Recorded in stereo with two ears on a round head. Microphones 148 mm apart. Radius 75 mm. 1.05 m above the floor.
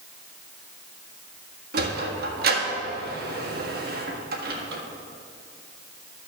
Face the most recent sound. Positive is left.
turn(degrees=-55)  # may be behind; listen again after turning